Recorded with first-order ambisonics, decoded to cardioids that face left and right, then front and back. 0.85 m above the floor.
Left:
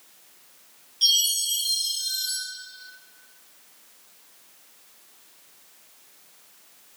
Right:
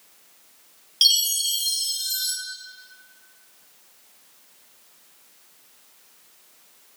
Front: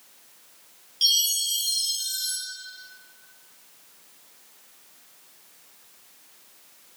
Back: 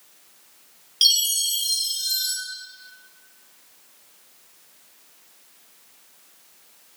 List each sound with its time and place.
1.0 s a chime: 125° right, 1.8 m